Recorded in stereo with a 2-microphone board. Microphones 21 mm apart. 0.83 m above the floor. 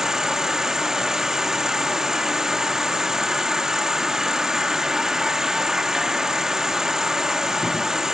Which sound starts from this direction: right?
An insect, at 0.0 s.